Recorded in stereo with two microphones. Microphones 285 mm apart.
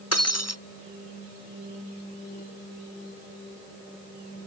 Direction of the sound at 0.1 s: 60° left (ahead or behind).